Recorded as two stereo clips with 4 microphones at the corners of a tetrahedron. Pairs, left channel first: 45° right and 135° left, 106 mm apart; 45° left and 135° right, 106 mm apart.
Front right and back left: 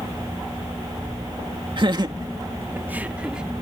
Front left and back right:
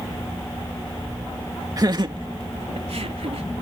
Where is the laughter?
170° left; by 3.5 s 140° right.